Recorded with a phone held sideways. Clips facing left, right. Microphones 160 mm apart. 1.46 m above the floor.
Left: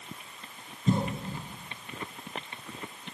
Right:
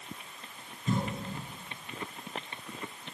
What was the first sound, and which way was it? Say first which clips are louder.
A cough: left 4 dB; 30° left (ahead or behind).